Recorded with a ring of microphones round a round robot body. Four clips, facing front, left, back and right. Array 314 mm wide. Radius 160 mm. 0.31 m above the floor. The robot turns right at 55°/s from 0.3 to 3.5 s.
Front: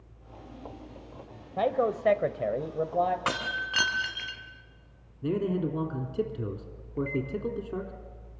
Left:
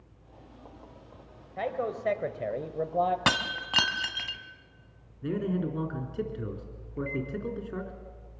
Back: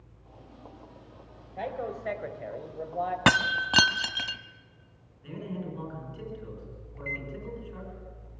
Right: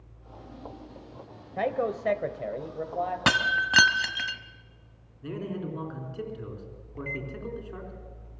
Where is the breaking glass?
170° right, 0.9 m; by 4.4 s 160° right, 0.9 m.